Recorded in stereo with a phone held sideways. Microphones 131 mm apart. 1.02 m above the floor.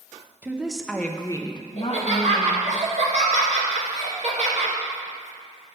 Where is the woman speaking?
15° right (ahead or behind), 0.8 m; by 2.8 s 70° left (ahead or behind), 1.0 m.